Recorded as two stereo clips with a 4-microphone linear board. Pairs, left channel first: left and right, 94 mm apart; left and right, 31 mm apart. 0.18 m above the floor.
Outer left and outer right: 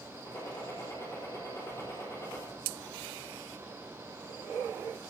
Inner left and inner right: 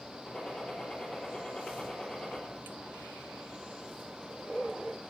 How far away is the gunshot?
About 5 m.